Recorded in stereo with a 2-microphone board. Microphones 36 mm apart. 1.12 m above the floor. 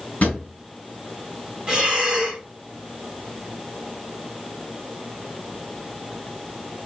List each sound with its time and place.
0.2 s a drawer: 50° left (ahead or behind), 1.2 m
1.7 s breathing: 20° right (ahead or behind), 1.2 m